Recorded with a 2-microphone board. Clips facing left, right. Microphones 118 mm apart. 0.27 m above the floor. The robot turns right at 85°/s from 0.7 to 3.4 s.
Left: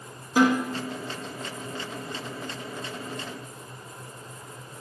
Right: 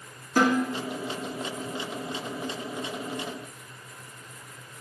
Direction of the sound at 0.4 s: 10° left (ahead or behind).